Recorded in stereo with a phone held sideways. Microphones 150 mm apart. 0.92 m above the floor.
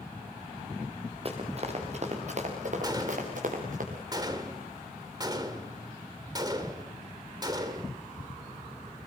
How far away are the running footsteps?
About 5.5 m.